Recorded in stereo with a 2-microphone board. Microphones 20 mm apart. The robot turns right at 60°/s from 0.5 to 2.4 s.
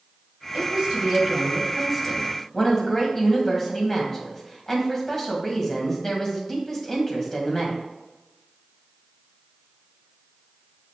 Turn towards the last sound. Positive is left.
turn(degrees=25)